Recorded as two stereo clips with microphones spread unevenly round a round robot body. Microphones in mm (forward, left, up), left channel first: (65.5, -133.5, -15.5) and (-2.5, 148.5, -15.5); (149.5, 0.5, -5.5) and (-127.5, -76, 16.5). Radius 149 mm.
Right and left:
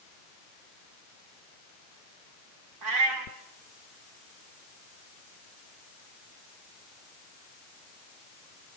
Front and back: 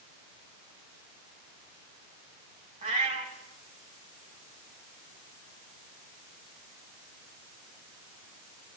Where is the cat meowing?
130° left, 2.5 m.